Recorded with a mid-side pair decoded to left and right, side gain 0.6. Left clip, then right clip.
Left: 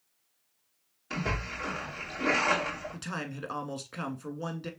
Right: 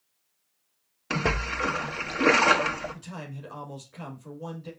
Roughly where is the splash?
Ahead right.